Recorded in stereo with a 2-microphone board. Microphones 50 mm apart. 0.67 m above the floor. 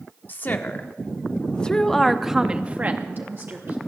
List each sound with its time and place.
0.3 s a woman speaking: 40° left (ahead or behind), 1.4 m; by 3.8 s 50° right (ahead or behind), 1.1 m